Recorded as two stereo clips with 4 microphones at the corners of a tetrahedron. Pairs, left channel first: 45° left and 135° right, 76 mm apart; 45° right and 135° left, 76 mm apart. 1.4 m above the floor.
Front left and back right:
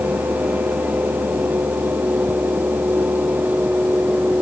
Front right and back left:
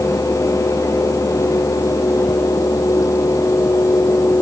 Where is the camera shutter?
No camera shutter in this recording.